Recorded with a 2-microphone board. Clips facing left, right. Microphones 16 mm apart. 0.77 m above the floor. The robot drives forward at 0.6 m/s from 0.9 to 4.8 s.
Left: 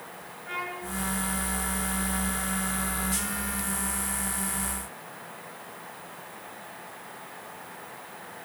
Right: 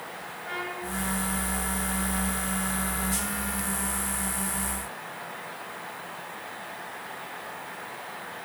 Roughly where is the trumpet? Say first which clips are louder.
Even; centre.